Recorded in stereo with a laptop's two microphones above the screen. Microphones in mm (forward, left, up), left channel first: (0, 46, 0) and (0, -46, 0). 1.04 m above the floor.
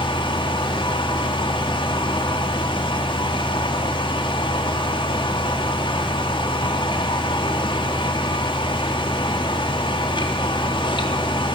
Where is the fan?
65° left (ahead or behind), 4 m.